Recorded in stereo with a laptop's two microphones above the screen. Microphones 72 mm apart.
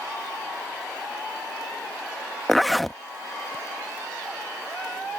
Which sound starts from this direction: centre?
A zipper, at 2.5 s.